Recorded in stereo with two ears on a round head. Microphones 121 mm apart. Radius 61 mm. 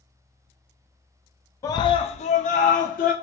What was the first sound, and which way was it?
A scream, 25° left (ahead or behind).